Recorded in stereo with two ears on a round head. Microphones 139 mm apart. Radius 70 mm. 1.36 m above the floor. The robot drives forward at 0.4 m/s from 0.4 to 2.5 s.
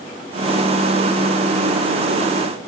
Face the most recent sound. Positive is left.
No sound to turn to.